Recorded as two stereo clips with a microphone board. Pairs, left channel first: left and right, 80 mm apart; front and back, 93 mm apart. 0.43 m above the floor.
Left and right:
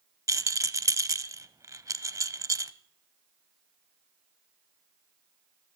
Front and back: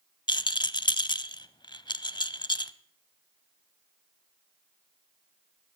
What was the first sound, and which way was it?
A rattle, 40° right.